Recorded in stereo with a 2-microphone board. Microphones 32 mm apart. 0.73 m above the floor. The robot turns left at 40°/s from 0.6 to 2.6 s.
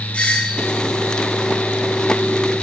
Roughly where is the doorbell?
Left.